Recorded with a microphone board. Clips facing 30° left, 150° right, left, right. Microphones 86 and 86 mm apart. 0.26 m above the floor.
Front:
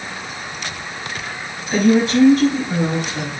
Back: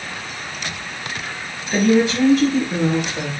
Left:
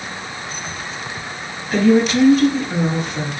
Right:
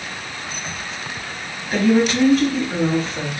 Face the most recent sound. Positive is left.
turn(degrees=15)